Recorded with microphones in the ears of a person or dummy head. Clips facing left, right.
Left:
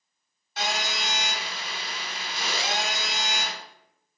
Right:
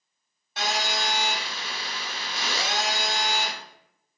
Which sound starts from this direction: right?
A phone buzzing, at 0.6 s.